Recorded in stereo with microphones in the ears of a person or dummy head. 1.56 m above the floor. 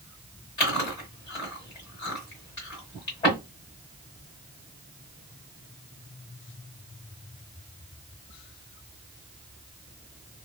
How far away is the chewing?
About 1.5 m.